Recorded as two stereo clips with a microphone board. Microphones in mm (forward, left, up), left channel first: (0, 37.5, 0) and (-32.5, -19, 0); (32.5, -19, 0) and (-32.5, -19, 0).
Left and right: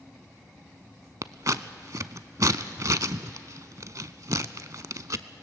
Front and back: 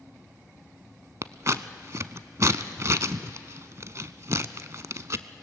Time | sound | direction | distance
1.2 | scissors | 145° right | 0.6 m